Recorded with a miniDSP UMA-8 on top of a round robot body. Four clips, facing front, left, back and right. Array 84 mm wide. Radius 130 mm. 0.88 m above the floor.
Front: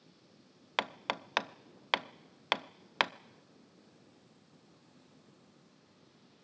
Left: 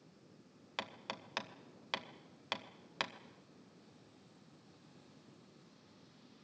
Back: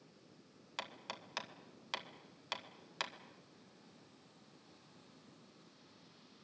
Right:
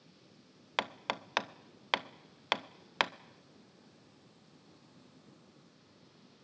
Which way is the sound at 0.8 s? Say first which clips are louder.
Right 9 dB, front 12 dB; 35° right.